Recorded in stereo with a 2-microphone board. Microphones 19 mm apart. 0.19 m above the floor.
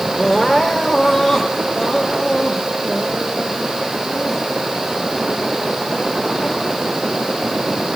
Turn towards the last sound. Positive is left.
turn(degrees=30)  # may be behind; listen again after turning